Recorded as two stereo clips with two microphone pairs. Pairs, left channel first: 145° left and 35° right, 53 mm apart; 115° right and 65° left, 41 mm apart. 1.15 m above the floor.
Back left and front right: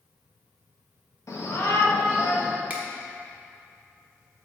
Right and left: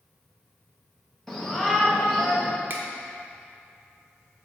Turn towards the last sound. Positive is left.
turn(degrees=25)